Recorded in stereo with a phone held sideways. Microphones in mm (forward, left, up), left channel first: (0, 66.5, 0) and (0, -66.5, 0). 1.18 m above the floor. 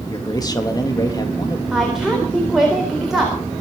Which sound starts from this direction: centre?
A woman speaking, at 1.7 s.